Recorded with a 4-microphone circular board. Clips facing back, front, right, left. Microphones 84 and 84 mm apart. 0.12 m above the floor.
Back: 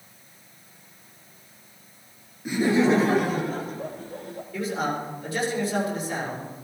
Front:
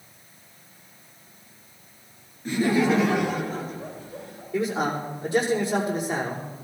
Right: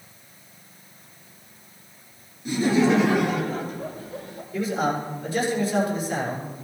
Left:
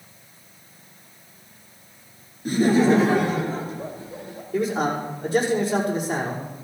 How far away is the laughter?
About 1.6 m.